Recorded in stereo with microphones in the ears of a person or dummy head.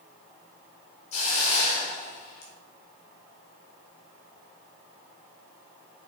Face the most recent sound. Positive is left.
turn(degrees=45)  # may be behind; listen again after turning